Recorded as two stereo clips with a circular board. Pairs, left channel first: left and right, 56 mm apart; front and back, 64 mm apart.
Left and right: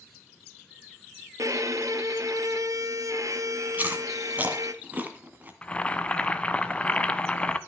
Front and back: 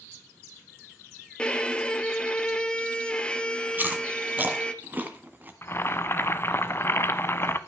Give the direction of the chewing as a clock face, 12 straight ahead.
4 o'clock.